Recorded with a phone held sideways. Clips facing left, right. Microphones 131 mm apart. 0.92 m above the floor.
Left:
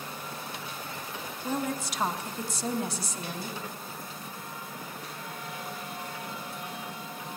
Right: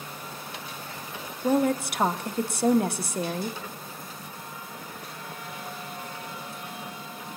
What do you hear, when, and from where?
1.4 s a woman speaking: 65° right (ahead or behind), 1.1 m